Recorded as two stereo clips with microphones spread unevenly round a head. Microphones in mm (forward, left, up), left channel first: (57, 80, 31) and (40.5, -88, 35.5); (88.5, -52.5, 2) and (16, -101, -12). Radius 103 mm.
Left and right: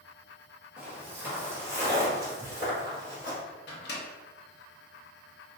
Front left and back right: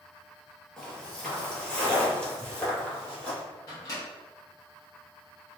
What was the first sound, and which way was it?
Footsteps, 25° right.